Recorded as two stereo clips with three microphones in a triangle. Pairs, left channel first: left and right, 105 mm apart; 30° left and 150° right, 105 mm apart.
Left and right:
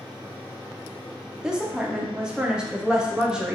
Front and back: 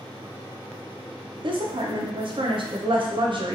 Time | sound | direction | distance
1.4 | a woman speaking | 170° right | 0.5 m